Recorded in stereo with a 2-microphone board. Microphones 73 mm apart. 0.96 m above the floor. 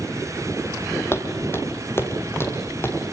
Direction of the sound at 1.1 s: 35° left (ahead or behind).